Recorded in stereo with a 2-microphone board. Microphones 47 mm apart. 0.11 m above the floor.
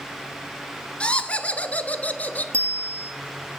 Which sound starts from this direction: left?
Laughter, at 1.0 s.